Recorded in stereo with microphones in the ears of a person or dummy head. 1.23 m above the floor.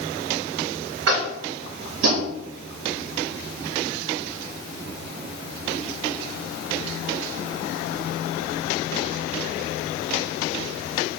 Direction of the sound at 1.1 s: 75° right (ahead or behind).